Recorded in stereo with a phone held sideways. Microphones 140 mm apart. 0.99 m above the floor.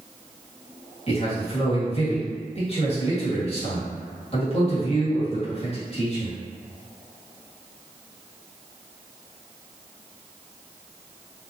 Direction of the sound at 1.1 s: 40° left (ahead or behind).